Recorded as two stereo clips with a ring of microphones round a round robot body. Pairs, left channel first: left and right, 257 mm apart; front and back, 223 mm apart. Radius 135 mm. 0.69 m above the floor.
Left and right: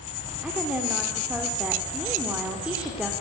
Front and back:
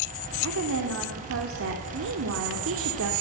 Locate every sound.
0.4 s a woman speaking: 175° right, 2.5 m